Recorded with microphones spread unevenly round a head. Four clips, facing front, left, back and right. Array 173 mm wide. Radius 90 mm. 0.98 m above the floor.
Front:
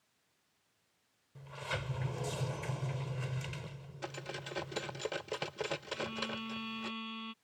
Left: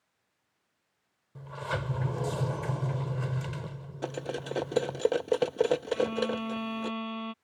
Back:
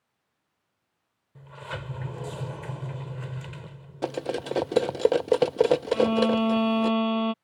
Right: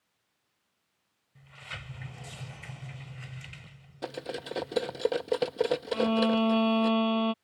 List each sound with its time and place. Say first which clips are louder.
1.4 s a sliding door: left 12 dB, back 3 dB; 105° left
4.0 s cutlery clinking: left 2 dB, back 15 dB; 175° left
5.9 s a violin: right 3 dB, back 19 dB; 140° right